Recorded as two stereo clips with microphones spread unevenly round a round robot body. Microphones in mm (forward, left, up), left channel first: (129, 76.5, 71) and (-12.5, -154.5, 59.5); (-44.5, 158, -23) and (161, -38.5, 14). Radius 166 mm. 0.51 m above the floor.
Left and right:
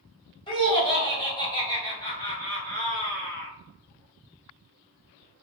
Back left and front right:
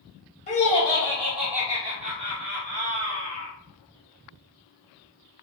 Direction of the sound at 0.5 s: 120° left.